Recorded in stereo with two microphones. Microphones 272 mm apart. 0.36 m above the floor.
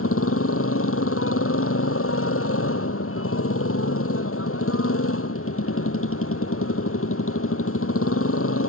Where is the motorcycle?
55° left (ahead or behind).